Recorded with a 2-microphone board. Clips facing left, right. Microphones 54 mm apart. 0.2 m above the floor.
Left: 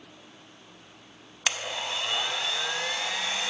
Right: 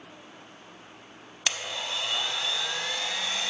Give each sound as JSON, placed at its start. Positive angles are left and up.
{"t": 1.5, "sound": "a blender", "side_deg": 15, "distance_m": 0.5}